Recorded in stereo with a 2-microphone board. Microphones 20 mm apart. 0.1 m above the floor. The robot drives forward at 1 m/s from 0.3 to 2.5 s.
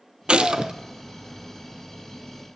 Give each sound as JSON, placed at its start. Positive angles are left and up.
{"t": 0.3, "sound": "a gunshot", "side_deg": -65, "distance_m": 0.7}